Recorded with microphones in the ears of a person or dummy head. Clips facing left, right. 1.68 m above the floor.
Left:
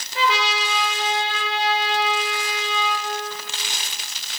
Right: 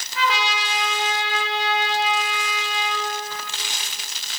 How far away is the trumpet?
About 1.4 m.